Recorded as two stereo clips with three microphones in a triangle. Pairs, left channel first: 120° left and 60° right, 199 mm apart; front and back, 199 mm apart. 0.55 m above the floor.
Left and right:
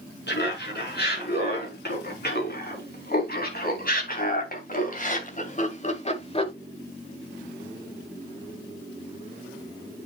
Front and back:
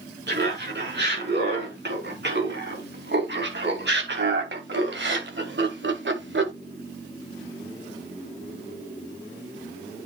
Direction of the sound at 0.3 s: 150° left.